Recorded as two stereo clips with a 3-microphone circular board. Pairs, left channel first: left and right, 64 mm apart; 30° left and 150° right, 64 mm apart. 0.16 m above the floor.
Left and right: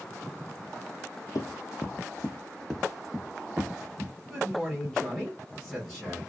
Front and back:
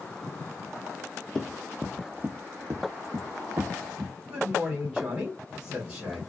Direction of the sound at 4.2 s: 165° left.